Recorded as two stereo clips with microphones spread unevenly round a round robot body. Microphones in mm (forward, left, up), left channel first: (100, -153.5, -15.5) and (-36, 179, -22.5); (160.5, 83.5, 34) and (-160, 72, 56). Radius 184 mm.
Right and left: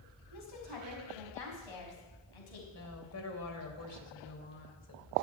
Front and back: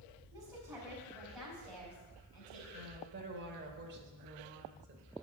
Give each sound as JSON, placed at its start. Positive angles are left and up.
{"t": 0.3, "sound": "a woman speaking", "azimuth_deg": -100, "distance_m": 4.5}
{"t": 2.7, "sound": "a woman speaking", "azimuth_deg": -115, "distance_m": 2.5}